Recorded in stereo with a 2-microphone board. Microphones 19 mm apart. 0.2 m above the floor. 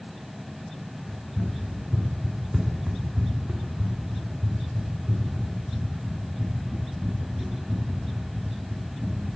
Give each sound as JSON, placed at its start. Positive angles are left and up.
{"t": 1.1, "sound": "running footsteps", "side_deg": 30, "distance_m": 1.6}